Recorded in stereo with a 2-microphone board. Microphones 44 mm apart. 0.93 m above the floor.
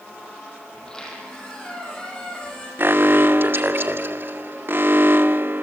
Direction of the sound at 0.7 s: 15° left (ahead or behind).